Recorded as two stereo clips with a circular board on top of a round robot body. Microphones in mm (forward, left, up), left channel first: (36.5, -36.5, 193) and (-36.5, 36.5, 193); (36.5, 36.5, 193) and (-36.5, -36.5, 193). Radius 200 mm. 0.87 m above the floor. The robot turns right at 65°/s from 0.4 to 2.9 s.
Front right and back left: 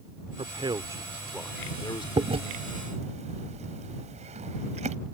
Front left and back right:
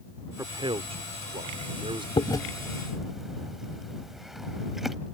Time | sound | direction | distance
0.4 | a man speaking | 165° left | ?
2.2 | chewing | 90° left | ?